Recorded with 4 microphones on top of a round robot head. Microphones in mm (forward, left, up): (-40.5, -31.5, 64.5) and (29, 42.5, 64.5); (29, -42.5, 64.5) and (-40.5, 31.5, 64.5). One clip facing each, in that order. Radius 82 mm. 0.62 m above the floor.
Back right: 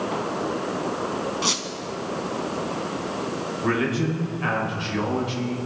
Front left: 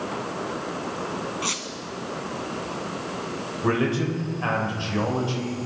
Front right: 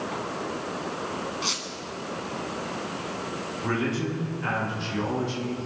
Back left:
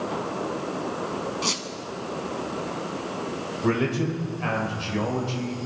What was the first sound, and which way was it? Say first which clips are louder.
A squeak: back right 3 dB, back left 3 dB; 170° left.